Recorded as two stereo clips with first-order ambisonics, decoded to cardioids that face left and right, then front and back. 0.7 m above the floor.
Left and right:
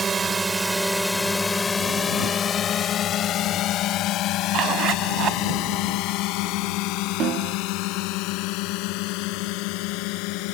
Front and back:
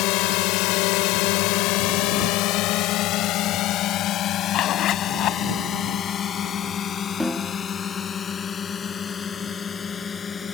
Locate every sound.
0.0 s a drone: 20° right; by 10.6 s 70° left
4.5 s a zipper: 40° right
7.2 s a snare drum: 85° right